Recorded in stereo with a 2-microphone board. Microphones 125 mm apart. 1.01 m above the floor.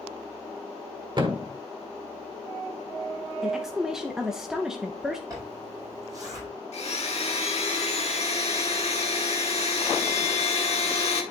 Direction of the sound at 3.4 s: 5° right (ahead or behind).